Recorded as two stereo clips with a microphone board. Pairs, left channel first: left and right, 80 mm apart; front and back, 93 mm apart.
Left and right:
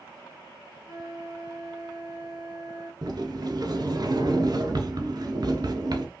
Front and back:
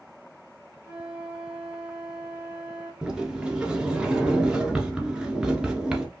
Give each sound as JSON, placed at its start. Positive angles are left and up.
{"t": 0.8, "sound": "a flute", "azimuth_deg": -100, "distance_m": 1.5}
{"t": 3.0, "sound": "a sliding door", "azimuth_deg": -100, "distance_m": 1.0}